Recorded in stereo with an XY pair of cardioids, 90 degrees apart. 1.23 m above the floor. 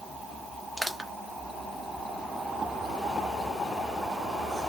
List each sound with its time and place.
0.8 s crushing: straight ahead, 1.0 m